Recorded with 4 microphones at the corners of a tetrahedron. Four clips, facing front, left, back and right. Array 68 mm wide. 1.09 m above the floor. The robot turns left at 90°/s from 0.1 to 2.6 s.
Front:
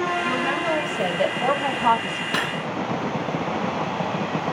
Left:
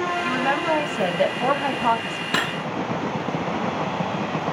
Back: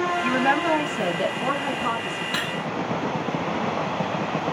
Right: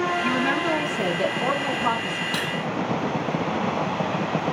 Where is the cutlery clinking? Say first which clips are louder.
Left 3 dB, front 4 dB; 60° left, 0.6 m; by 2.6 s 40° left, 0.6 m.